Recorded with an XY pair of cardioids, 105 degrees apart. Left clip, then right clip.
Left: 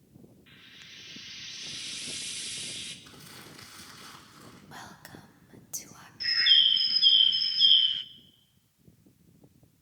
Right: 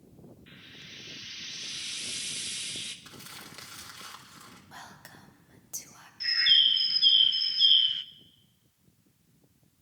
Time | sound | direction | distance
0.5 | frying | 20° right | 1.6 m
3.0 | crumpling | 65° right | 3 m
4.7 | whispering | 10° left | 1.6 m
6.2 | a bird | 5° left | 0.5 m